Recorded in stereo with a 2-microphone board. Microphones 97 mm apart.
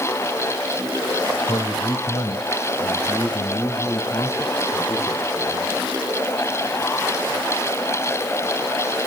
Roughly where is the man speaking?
Left.